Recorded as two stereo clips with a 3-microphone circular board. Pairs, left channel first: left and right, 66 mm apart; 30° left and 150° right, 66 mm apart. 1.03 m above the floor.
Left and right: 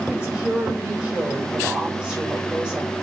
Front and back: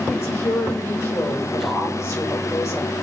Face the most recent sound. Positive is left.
turn(degrees=-15)